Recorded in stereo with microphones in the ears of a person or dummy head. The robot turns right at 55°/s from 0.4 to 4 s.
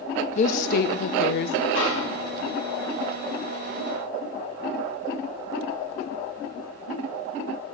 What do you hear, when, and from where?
0.3 s a woman speaking: 50° left, 0.7 m; by 1.6 s 115° left, 0.7 m
1.8 s a snare drum: 125° left, 1.7 m; by 2.5 s 165° left, 1.7 m